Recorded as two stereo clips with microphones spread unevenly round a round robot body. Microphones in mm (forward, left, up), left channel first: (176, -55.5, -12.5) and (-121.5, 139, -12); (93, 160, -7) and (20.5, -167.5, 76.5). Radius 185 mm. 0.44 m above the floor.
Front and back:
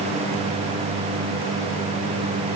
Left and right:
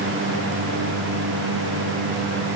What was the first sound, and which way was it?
Only background noise.